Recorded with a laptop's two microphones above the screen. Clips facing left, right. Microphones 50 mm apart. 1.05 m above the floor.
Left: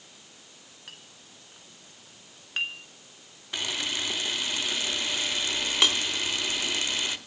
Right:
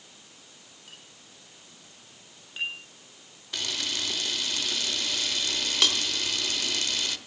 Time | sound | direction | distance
0.9 | a clink | 65° left (ahead or behind) | 3.5 m
3.5 | a camera shutter | 20° left (ahead or behind) | 1.1 m